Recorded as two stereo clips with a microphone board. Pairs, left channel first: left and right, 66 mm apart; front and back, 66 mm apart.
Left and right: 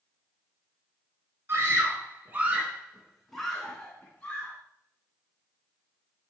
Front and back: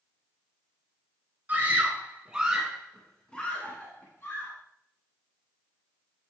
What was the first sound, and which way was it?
A scream, 130° right.